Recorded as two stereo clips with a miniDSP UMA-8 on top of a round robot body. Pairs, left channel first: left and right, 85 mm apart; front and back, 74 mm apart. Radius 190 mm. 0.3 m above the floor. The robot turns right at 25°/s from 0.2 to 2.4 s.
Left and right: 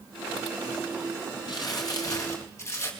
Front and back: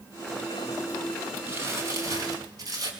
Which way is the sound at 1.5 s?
120° left.